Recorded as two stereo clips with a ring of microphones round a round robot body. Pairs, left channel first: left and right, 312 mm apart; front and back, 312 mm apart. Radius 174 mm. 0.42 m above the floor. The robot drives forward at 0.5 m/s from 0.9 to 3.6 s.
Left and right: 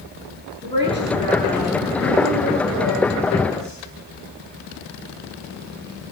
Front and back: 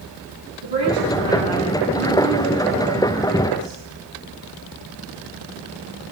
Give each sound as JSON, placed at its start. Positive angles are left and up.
{"t": 0.6, "sound": "a woman speaking", "azimuth_deg": 165, "distance_m": 6.0}